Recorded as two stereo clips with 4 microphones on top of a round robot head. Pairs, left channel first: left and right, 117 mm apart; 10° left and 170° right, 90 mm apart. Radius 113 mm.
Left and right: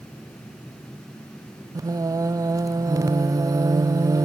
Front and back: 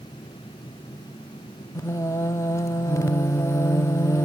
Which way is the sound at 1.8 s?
35° right.